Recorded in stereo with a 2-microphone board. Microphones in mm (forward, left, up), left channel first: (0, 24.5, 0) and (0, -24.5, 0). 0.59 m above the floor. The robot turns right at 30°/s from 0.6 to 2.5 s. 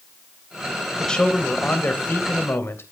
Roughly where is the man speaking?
Ahead.